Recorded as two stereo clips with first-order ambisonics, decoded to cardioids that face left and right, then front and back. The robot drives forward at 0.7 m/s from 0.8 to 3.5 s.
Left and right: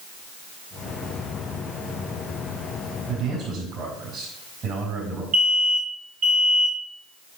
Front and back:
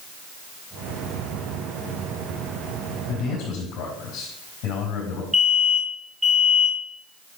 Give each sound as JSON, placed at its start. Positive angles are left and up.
{"t": 3.1, "sound": "a man speaking", "azimuth_deg": -30, "distance_m": 5.0}
{"t": 5.3, "sound": "an alarm", "azimuth_deg": -105, "distance_m": 1.6}